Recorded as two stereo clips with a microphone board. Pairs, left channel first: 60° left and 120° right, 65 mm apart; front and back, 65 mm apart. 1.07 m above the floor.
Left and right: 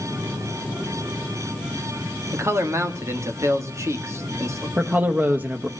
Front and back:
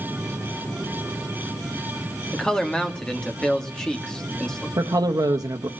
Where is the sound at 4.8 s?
Straight behind, 1.0 m.